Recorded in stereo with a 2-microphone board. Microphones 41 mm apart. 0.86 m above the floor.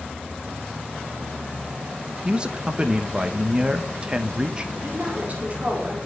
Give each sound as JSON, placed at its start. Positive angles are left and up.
{"t": 2.2, "sound": "a man speaking", "side_deg": -25, "distance_m": 0.8}
{"t": 4.8, "sound": "a woman speaking", "side_deg": -40, "distance_m": 2.5}